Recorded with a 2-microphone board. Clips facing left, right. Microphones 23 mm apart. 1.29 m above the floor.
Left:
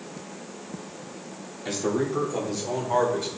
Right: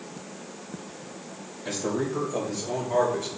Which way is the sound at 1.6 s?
25° left (ahead or behind).